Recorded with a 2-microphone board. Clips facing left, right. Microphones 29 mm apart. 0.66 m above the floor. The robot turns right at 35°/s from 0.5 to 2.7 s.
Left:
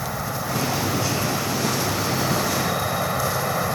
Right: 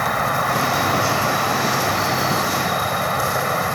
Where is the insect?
105° right; by 3.8 s 25° right.